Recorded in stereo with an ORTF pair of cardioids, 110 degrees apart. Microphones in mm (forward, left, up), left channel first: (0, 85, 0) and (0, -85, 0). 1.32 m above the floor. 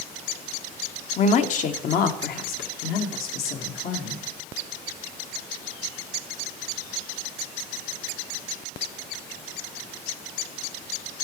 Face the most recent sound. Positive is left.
turn(degrees=65)